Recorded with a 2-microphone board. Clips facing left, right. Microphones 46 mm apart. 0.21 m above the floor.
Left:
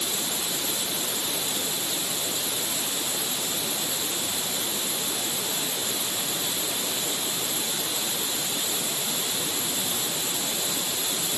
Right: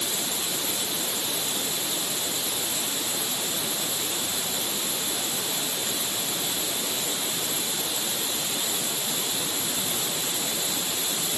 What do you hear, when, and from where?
Only background noise.